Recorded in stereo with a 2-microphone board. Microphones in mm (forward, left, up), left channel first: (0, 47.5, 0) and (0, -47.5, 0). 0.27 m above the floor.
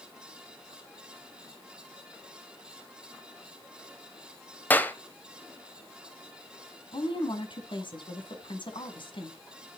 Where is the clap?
20° left (ahead or behind), 1.2 m.